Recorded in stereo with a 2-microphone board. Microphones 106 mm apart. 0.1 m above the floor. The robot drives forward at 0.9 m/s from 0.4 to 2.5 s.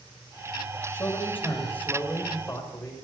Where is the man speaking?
20° left (ahead or behind), 4 m; by 3.0 s 15° left (ahead or behind), 5 m.